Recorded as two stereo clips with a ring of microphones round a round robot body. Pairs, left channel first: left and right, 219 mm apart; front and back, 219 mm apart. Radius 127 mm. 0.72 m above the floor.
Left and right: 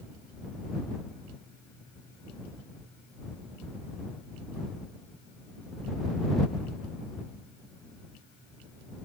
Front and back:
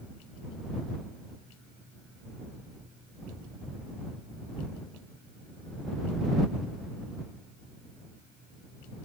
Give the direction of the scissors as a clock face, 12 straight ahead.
No scissors in this recording.